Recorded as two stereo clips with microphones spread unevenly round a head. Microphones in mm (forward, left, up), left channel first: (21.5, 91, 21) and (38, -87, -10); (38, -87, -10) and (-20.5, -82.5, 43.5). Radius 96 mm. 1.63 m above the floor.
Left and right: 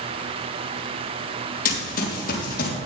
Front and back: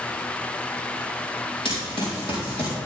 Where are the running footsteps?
75° left, 3 m; by 2.8 s 70° left, 4 m.